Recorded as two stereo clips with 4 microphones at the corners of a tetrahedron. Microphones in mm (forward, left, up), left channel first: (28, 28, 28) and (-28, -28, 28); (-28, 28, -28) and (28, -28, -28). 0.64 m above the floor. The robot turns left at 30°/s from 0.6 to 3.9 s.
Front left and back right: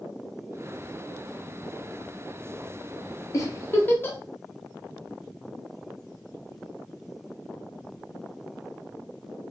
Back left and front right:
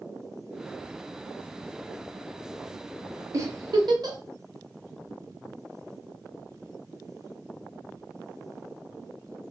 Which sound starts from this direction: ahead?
A giggle, at 3.3 s.